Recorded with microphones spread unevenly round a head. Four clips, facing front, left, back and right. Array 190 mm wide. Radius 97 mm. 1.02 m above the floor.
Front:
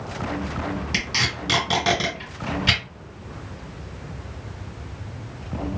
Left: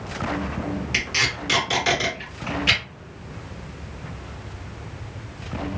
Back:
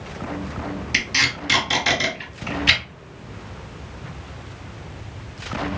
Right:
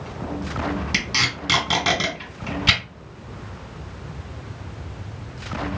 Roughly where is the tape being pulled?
Right.